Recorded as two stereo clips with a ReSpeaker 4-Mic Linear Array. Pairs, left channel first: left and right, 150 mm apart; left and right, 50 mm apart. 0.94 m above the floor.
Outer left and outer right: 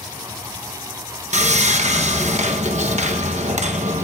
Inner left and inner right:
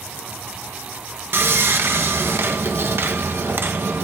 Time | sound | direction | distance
1.3 | sawing | 50° right (ahead or behind) | 0.9 m